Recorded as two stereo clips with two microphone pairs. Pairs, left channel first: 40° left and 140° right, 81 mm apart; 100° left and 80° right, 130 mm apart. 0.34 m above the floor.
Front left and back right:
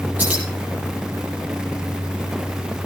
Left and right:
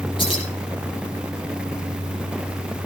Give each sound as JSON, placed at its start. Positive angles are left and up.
{"t": 0.2, "sound": "keys jangling", "azimuth_deg": 150, "distance_m": 7.5}